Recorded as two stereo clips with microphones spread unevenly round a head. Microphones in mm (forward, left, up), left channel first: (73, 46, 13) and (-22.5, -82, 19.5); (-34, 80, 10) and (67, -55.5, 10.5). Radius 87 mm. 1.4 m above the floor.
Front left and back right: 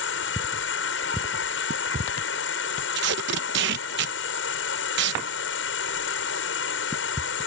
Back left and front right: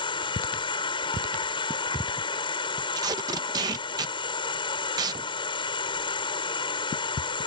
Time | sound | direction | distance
0.0 | an insect | 65° left | ?
3.0 | tape being pulled | 125° right | ?